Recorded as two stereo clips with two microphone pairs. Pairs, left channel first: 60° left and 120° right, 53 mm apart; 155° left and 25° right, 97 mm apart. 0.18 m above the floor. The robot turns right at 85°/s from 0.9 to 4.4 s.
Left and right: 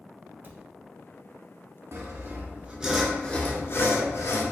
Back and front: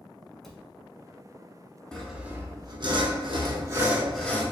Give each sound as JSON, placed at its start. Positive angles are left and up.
{"t": 0.4, "sound": "a cupboard door", "azimuth_deg": -120, "distance_m": 0.7}
{"t": 1.9, "sound": "sawing", "azimuth_deg": -125, "distance_m": 0.8}